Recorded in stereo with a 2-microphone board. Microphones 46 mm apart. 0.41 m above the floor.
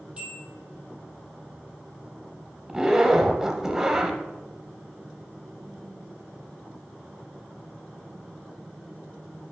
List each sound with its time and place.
0.2 s a bell: 25° right (ahead or behind), 2.5 m
2.7 s a zipper: 10° right (ahead or behind), 0.9 m